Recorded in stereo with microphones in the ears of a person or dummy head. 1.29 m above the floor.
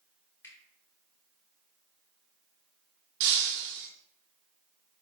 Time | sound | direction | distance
0.4 | a finger snap | 10° left (ahead or behind) | 3 m
3.2 | breaking glass | 65° right (ahead or behind) | 1.4 m